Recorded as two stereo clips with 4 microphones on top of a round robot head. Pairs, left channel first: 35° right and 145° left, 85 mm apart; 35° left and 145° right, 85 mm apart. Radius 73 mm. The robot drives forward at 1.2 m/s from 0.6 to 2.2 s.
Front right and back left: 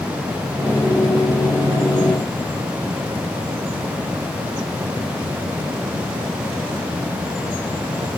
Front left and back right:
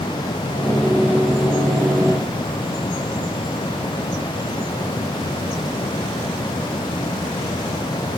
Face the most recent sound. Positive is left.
No sound to turn to.